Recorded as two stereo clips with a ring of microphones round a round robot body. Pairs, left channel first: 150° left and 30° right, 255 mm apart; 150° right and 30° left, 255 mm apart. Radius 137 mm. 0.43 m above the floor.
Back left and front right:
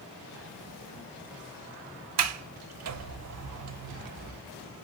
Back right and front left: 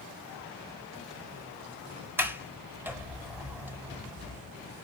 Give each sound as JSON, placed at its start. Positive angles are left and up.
{"t": 2.2, "sound": "a sliding door", "azimuth_deg": -55, "distance_m": 0.7}